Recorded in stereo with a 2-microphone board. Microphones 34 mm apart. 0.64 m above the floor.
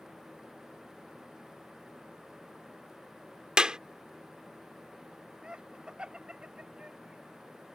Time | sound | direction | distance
3.6 | a clap | 20° right (ahead or behind) | ?
5.4 | laughter | 25° right (ahead or behind) | ?